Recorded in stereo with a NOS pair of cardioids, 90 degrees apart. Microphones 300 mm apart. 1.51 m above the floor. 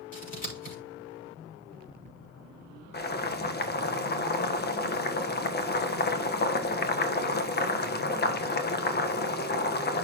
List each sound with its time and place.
0.1 s scissors: 25° left, 6 m
2.9 s boiling: 30° left, 1.4 m